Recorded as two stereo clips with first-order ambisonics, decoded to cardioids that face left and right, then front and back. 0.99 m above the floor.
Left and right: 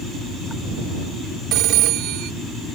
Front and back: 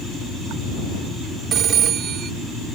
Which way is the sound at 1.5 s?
125° right.